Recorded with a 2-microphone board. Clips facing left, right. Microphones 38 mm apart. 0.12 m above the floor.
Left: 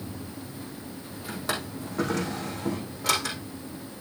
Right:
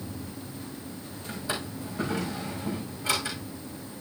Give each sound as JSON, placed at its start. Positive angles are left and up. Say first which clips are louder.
{"t": 1.3, "sound": "a drawer", "louder": "left 2 dB", "side_deg": 75, "distance_m": 4.0}